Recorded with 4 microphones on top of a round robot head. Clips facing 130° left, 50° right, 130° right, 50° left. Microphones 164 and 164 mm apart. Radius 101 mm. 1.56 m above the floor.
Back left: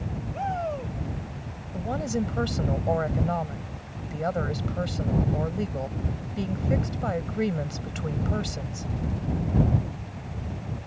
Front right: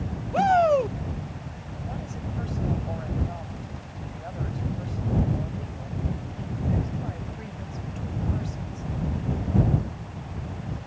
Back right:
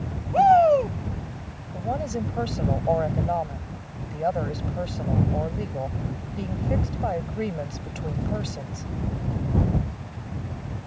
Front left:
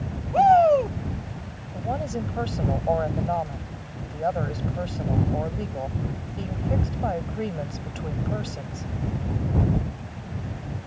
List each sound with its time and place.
0.3 s a shout: 45° right
1.7 s a woman speaking: 145° left